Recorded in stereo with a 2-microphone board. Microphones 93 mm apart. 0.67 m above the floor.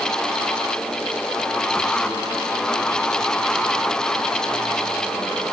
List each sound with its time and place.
Only background noise.